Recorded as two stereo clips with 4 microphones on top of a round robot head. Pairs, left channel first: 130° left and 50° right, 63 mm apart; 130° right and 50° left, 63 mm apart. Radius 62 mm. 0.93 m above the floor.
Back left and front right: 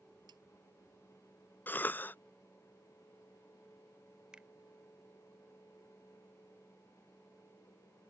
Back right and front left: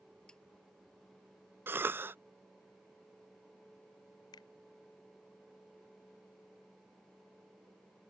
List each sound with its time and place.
0.3 s a snare drum: 55° right
1.7 s a cough: 85° left
4.3 s a finger snap: 125° right